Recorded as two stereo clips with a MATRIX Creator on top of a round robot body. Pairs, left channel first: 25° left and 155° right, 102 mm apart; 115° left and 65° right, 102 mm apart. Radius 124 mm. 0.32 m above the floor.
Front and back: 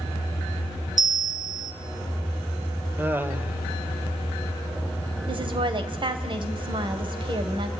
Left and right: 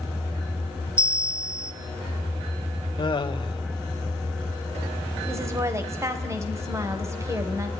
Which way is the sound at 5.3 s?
125° right.